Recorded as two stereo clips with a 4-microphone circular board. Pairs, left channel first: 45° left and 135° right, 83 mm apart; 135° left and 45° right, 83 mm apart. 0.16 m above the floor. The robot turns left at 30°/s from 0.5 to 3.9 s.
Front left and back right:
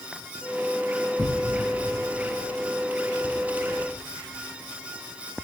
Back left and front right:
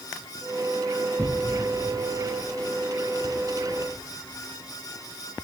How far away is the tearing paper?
About 2.0 m.